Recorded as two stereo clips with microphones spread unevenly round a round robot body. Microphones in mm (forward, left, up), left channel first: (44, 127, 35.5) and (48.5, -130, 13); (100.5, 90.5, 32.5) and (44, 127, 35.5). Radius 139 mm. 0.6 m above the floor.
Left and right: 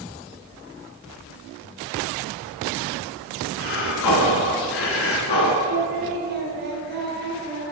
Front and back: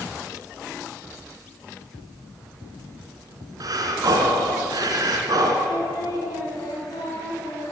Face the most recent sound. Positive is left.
turn(degrees=-50)